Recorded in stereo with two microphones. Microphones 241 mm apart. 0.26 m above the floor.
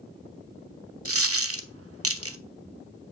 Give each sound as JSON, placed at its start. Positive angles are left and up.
{"t": 1.1, "sound": "a dropped coin", "side_deg": -70, "distance_m": 0.6}